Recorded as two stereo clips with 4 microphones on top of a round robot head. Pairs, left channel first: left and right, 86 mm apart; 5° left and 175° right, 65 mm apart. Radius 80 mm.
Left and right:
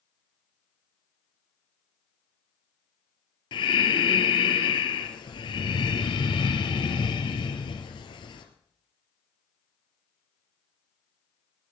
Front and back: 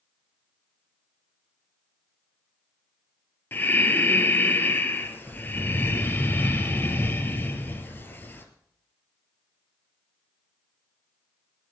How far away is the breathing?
About 2 m.